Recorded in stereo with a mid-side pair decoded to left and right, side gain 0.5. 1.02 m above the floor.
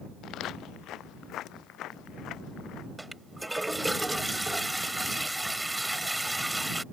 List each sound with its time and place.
0.2 s footsteps: 70° left
3.0 s a toilet flushing: 5° right